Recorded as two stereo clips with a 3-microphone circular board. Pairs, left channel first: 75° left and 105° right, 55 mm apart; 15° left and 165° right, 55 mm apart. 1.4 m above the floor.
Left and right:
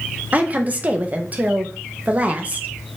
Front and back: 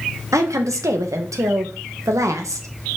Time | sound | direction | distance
0.3 | a woman speaking | 165° right | 1.6 m